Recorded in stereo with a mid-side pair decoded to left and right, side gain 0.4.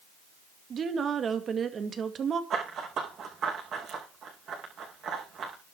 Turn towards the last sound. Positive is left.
turn(degrees=-65)